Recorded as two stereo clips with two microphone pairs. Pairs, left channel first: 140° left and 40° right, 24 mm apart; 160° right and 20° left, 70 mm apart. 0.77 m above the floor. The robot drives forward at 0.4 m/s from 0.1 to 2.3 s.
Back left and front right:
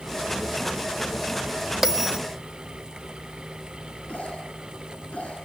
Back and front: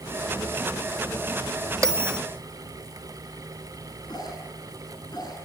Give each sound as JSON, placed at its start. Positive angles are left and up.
{"t": 1.8, "sound": "a bell", "azimuth_deg": 30, "distance_m": 1.4}
{"t": 4.1, "sound": "a cough", "azimuth_deg": 175, "distance_m": 8.0}